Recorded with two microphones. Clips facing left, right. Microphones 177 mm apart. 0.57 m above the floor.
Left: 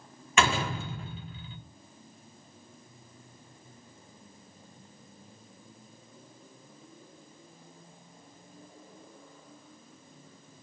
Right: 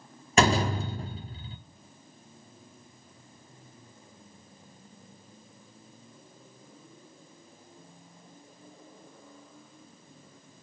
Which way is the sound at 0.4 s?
40° right (ahead or behind).